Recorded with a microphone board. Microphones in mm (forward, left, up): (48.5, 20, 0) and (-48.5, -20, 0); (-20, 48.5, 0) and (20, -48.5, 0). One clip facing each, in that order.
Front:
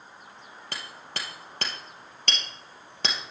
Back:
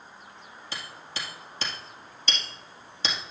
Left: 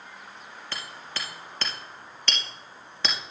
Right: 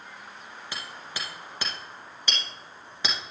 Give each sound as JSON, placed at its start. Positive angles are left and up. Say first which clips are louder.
{"t": 0.7, "sound": "hammering", "louder": "even, left 1 dB", "azimuth_deg": 10, "distance_m": 2.5}